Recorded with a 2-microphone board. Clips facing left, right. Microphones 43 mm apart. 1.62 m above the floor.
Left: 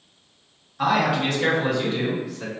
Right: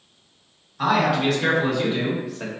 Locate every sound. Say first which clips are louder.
0.8 s a man speaking: right 1 dB; 10° left (ahead or behind), 1.6 m; by 2.5 s 35° right (ahead or behind), 0.9 m